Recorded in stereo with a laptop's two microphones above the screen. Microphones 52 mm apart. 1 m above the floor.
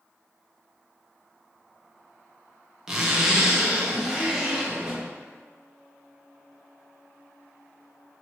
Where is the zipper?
15° right (ahead or behind), 0.5 m.